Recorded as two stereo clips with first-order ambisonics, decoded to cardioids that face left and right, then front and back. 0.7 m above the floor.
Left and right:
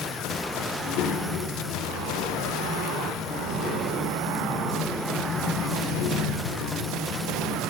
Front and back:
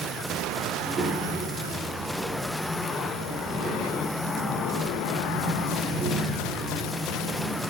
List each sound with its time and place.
0.7 s a child speaking: 115° left, 1.2 m